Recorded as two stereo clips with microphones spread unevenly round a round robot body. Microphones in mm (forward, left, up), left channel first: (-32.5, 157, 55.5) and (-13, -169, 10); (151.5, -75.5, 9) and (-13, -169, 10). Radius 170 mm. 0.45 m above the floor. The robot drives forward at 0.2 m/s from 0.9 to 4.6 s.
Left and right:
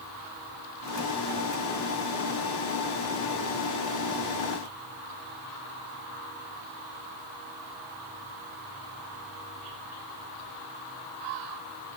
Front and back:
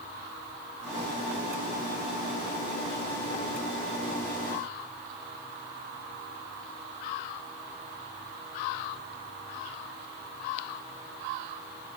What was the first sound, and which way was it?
Only background noise.